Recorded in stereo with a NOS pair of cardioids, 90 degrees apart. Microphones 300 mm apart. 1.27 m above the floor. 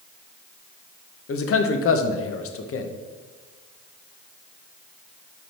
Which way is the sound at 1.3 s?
50° left.